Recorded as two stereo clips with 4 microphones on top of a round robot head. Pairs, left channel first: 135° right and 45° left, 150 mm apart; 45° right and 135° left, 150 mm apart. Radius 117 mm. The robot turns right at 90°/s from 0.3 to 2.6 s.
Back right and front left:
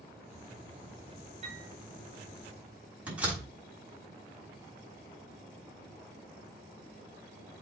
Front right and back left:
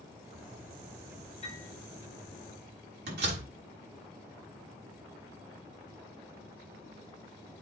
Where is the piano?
Straight ahead, 4.5 m; by 1.7 s 25° left, 4.5 m.